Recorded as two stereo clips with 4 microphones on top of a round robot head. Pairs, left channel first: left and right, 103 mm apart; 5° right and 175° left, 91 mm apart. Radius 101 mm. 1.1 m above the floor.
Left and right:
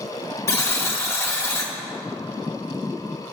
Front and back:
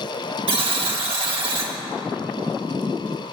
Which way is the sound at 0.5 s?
155° left.